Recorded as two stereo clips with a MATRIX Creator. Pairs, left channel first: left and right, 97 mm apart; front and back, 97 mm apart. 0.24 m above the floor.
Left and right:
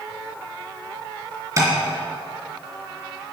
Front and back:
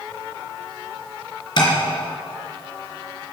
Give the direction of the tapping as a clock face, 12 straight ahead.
1 o'clock.